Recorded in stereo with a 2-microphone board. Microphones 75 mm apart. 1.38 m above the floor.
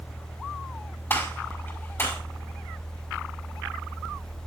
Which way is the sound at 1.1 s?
30° left (ahead or behind).